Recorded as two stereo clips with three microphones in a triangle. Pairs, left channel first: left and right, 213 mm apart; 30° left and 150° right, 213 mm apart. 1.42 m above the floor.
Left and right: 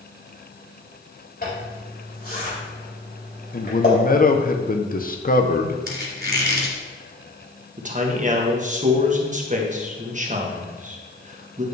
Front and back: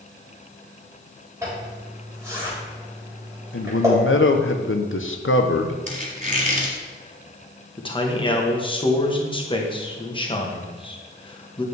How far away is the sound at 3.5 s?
About 0.9 m.